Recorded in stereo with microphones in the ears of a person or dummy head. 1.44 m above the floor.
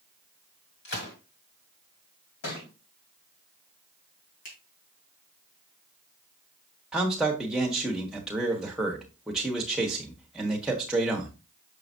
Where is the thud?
70° left (ahead or behind), 3.5 m.